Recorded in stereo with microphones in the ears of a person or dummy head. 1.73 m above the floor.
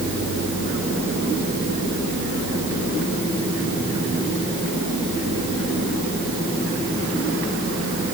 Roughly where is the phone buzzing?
I don't hear a phone buzzing.